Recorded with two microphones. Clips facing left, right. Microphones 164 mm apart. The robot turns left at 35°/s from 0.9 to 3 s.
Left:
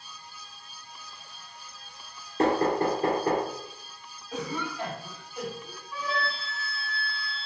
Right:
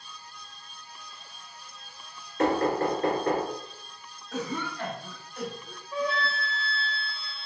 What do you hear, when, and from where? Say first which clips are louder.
2.4 s knocking: left 1 dB; 35° left (ahead or behind), 1.9 m; by 3.5 s 15° left (ahead or behind), 1.9 m
4.3 s a cough: even; 10° left (ahead or behind), 1.0 m
5.9 s a flute: right 3 dB; 25° right (ahead or behind), 0.9 m